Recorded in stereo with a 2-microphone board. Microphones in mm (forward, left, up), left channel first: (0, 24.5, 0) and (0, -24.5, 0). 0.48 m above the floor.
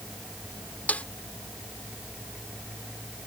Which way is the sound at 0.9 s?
30° left (ahead or behind).